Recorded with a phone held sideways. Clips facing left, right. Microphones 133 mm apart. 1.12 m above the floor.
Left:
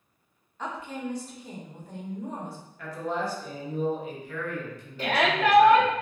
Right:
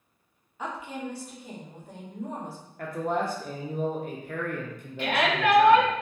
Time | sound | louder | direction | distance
0.6 | a woman speaking | even | 10° right (ahead or behind) | 0.7 m
2.8 | a man speaking | right 3 dB | 55° right (ahead or behind) | 0.6 m
5.0 | a shout | left 1 dB | 35° left (ahead or behind) | 0.7 m